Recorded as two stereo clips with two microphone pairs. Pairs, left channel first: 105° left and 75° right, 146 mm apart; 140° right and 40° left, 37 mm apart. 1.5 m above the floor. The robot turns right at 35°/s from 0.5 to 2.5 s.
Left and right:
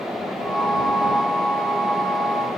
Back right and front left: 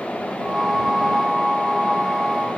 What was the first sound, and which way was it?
Only background noise.